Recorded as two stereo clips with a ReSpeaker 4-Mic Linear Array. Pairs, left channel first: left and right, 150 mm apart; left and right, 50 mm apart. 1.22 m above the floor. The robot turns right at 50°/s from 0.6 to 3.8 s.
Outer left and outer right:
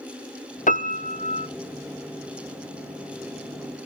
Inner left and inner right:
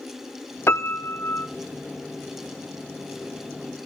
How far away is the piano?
About 1.0 m.